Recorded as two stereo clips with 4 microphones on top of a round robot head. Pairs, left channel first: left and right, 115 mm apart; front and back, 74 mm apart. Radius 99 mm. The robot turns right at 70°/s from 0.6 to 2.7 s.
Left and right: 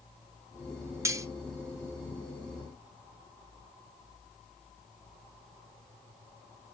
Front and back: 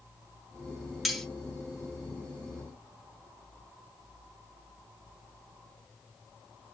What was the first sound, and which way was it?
Cutlery clinking, 95° right.